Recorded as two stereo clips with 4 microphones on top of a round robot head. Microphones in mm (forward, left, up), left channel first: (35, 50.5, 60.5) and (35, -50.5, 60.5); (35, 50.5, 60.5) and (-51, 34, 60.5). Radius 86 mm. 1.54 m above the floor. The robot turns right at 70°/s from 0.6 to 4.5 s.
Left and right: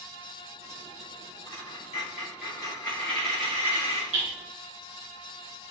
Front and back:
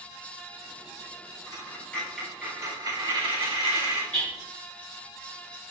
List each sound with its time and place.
1.5 s a dropped coin: 55° left, 4 m; by 4.0 s 125° right, 4 m
4.1 s hammering: 70° right, 3.5 m; by 4.3 s 60° right, 3.5 m